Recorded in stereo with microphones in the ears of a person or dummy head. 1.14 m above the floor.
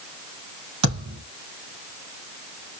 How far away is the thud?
About 3 m.